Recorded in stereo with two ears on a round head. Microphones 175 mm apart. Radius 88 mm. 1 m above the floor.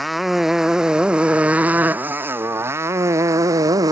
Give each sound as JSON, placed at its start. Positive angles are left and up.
{"t": 0.0, "sound": "a motorcycle", "side_deg": 0}